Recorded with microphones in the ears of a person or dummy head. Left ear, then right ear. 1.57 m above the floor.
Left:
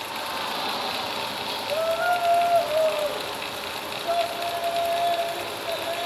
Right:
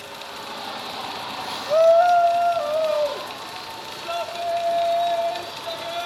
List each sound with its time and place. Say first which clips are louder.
0.1 s a shout: left 5 dB; 30° left (ahead or behind), 1.1 m; by 6.1 s 65° right (ahead or behind), 3 m